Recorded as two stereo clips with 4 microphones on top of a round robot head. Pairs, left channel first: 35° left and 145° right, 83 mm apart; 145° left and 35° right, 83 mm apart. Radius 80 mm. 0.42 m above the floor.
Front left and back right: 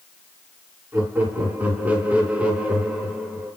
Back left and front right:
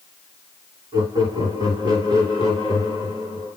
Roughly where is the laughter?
Right.